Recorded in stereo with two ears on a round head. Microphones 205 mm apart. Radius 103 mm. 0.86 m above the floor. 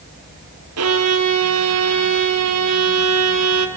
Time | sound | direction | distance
0.8 | a violin | 75° right (ahead or behind) | 2.5 m